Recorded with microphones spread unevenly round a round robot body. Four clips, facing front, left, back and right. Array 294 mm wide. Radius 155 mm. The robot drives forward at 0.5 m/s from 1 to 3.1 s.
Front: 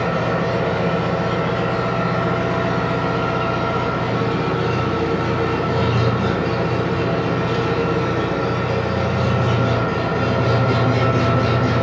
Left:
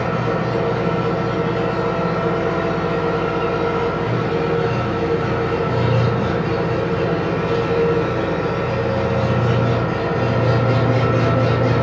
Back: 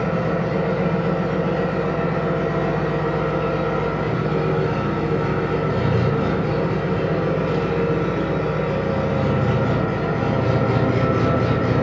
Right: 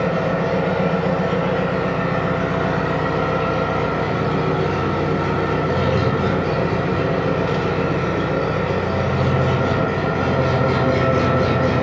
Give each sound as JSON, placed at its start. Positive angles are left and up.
{"t": 0.0, "sound": "an engine running", "azimuth_deg": -45, "distance_m": 1.4}